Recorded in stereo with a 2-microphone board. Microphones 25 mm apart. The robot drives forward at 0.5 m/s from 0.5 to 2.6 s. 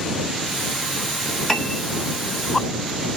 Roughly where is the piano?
Centre.